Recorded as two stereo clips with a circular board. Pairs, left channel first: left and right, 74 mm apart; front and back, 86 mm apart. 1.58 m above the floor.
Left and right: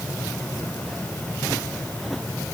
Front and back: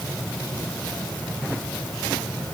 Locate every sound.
Only background noise.